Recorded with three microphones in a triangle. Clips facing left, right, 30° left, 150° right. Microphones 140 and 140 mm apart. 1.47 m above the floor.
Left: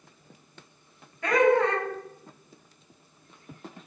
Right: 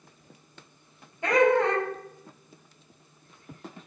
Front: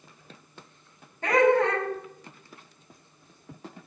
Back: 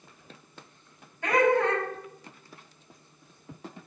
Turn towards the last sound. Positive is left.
turn(degrees=-30)